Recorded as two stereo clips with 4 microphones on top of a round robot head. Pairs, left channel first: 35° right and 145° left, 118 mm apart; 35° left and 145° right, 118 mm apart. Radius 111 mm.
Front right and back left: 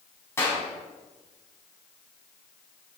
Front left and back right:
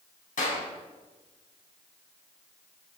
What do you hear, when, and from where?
0.4 s a clap: 35° left, 4 m